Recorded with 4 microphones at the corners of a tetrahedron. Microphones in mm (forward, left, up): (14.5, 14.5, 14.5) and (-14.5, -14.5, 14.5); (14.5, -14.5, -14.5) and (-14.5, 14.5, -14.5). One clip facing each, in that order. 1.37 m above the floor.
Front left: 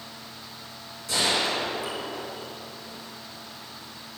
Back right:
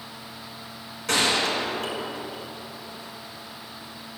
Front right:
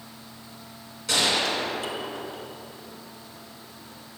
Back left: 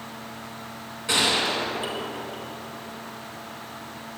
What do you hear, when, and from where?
1.1 s a gunshot: 160° right, 3.5 m